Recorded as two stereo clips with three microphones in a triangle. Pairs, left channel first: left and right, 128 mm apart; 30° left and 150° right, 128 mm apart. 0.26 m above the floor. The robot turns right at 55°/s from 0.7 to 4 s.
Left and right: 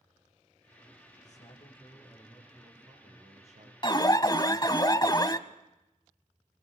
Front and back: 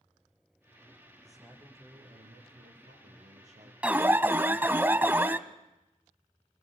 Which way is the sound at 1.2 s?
115° left.